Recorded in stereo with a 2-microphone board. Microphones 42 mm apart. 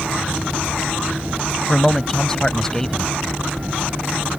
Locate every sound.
1.7 s a man speaking: 15° left (ahead or behind)